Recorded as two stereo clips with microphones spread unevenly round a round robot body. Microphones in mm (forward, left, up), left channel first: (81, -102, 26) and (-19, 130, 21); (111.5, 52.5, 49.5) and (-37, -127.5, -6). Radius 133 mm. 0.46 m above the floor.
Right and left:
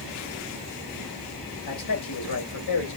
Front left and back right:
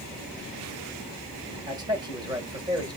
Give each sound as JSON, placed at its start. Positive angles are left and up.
{"t": 1.7, "sound": "a man speaking", "azimuth_deg": -65, "distance_m": 2.0}